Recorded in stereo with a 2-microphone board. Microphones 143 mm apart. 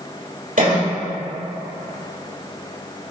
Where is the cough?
70° right (ahead or behind), 2.5 m.